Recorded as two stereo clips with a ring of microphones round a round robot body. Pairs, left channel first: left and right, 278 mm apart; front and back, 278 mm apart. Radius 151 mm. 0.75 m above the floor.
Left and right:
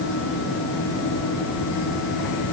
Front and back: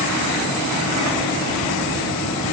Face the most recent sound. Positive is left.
No sound to turn to.